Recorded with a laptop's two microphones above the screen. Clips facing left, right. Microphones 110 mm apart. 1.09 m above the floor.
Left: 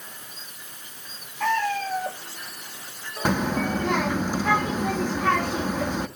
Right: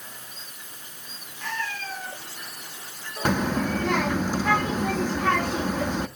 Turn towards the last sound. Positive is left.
turn(degrees=10)  # may be behind; listen again after turning